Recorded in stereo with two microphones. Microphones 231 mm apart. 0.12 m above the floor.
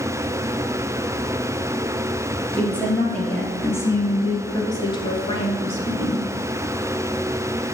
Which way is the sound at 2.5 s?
5° left (ahead or behind).